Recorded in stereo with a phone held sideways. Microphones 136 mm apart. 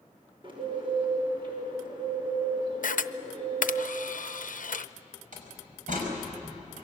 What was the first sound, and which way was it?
A bird, 40° right (ahead or behind).